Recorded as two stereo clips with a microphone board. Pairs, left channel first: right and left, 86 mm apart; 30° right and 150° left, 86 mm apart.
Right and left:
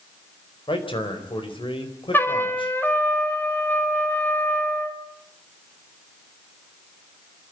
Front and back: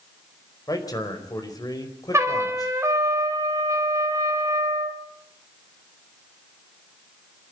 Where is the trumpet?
155° right, 2.5 m.